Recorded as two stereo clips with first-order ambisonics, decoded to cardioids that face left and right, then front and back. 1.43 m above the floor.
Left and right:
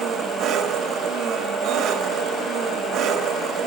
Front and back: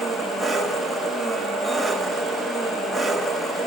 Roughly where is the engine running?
Right.